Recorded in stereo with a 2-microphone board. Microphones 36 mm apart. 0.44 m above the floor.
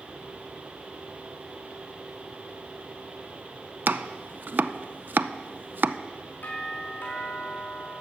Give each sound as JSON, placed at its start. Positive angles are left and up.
{"t": 3.9, "sound": "chopping", "side_deg": -65, "distance_m": 0.6}
{"t": 6.4, "sound": "a doorbell", "side_deg": 65, "distance_m": 4.5}